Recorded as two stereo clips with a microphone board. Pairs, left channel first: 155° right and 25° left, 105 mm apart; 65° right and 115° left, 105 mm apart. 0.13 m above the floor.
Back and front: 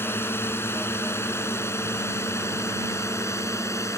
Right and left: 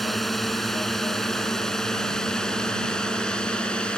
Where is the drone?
155° right; by 4.0 s 140° right.